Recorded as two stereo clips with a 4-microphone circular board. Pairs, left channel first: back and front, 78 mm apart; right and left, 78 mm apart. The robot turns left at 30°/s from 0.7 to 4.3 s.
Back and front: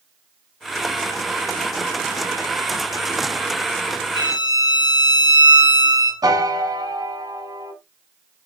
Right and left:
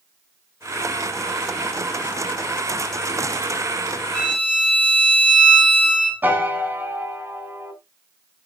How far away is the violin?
About 4 m.